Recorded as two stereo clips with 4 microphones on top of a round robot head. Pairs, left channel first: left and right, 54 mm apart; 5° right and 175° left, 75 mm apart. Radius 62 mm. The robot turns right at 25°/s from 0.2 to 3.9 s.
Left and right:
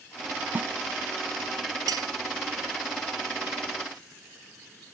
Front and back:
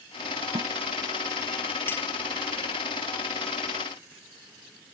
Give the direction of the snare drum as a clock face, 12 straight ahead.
5 o'clock.